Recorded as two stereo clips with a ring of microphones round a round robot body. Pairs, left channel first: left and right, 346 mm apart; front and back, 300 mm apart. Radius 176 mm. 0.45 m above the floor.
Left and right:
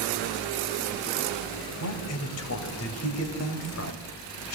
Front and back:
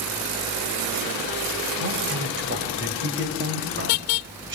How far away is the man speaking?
About 3 m.